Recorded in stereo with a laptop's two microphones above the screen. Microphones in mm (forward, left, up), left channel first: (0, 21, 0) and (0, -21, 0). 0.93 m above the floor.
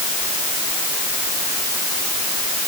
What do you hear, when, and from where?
Only background noise.